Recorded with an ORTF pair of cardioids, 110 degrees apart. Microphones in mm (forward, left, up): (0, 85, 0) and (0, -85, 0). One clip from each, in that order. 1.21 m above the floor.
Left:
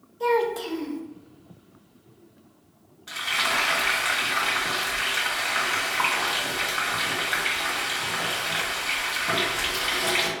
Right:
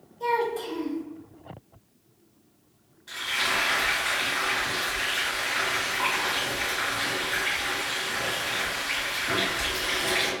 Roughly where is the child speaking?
Ahead left.